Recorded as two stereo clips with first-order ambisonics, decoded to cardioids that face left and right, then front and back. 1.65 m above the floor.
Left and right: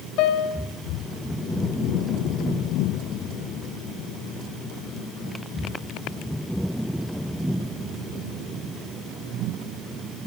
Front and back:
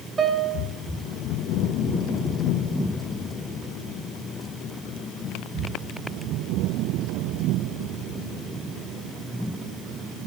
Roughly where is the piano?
Left.